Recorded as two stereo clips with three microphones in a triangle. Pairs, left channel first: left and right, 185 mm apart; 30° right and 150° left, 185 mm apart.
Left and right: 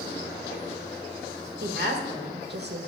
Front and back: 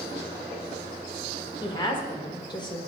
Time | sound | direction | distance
1.6 | a woman speaking | 95° right | 1.4 m